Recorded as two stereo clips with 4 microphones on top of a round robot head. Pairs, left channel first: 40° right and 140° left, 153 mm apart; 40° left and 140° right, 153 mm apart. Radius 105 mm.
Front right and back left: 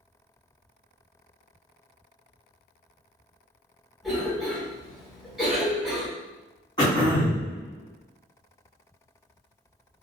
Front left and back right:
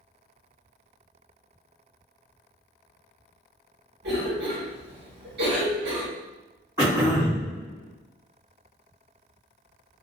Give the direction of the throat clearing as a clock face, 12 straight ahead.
3 o'clock.